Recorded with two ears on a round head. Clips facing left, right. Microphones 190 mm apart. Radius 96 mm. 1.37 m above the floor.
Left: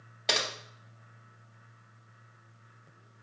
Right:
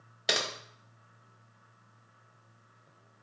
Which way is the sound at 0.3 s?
10° right (ahead or behind).